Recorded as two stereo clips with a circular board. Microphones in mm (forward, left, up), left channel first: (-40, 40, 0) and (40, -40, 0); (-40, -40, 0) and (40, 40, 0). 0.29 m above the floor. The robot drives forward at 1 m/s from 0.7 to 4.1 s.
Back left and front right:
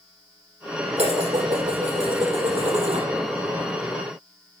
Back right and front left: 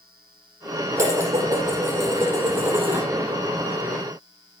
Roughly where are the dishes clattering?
Ahead.